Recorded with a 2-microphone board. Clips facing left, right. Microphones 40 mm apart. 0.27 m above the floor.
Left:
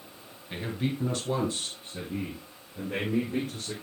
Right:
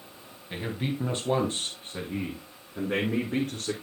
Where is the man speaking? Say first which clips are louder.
Even; 5° right (ahead or behind), 1.8 m; by 3.7 s 70° right (ahead or behind), 3.5 m.